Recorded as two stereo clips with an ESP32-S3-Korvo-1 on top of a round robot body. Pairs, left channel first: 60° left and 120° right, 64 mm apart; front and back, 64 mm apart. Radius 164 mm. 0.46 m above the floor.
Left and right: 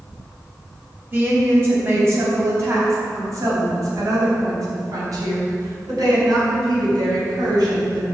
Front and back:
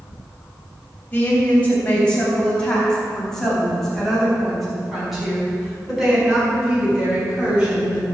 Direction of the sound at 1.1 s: 65° right.